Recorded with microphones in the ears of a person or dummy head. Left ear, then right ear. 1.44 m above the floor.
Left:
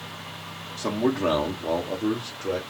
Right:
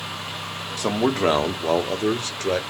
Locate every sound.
0.8 s a man speaking: 40° right (ahead or behind), 1.2 m; by 2.6 s 70° right (ahead or behind), 1.0 m